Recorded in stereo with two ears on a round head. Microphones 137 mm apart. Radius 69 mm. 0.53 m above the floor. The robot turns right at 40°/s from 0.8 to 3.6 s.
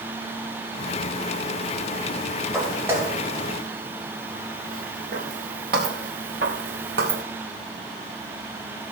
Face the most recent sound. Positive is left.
turn(degrees=-70)  # may be behind; listen again after turning